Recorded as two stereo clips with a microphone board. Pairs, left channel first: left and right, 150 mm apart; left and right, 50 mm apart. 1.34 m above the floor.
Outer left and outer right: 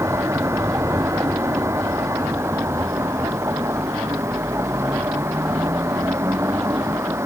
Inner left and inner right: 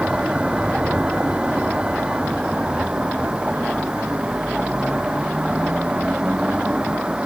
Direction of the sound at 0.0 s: 15° right (ahead or behind).